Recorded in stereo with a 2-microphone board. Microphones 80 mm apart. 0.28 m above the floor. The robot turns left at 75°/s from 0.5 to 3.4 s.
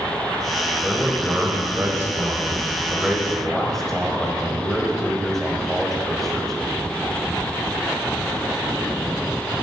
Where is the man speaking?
5° left (ahead or behind), 1.1 m.